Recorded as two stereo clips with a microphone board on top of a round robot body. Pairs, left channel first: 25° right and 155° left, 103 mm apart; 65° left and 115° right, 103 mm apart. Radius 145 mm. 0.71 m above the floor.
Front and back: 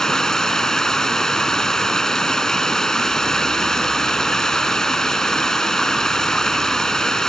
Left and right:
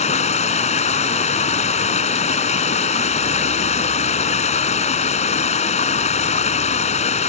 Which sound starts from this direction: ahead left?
Running water, at 0.0 s.